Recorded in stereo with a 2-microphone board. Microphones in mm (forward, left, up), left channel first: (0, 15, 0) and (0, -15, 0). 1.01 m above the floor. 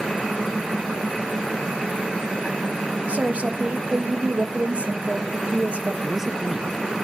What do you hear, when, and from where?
3.1 s a woman speaking: 50° right (ahead or behind), 1.5 m
6.0 s a man speaking: 10° right (ahead or behind), 0.7 m